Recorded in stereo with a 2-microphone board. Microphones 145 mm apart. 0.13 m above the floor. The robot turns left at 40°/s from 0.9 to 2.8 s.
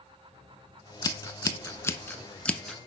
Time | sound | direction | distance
1.0 | scissors | 25° left (ahead or behind) | 0.7 m